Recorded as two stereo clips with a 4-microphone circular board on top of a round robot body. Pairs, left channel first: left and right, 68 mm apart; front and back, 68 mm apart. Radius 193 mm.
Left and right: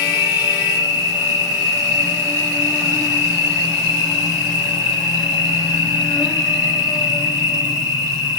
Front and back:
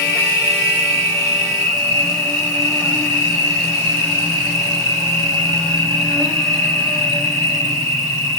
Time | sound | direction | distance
0.0 | an insect | 90° left | 2.5 m